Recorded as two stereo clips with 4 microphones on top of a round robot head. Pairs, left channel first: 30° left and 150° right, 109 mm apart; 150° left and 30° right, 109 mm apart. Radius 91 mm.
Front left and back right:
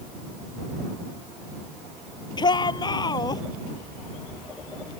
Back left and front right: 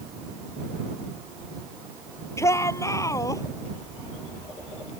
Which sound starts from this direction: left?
A shout, at 2.4 s.